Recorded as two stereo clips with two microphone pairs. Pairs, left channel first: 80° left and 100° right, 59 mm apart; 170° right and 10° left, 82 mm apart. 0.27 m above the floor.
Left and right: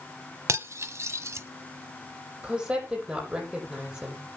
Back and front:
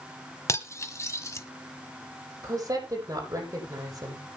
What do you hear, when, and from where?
0.5 s cutlery clinking: 120° right, 1.0 m
2.4 s a woman speaking: 30° right, 8.5 m